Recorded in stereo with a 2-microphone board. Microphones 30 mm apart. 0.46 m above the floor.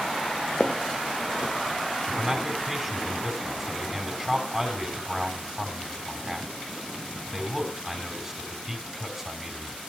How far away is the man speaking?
About 3.5 m.